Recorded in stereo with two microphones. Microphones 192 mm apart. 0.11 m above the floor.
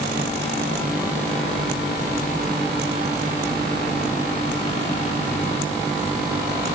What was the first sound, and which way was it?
Only background noise.